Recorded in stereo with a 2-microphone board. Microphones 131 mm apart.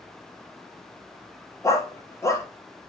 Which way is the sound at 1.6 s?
20° left (ahead or behind).